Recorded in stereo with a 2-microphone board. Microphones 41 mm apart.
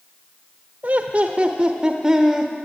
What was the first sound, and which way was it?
Laughter, 40° right (ahead or behind).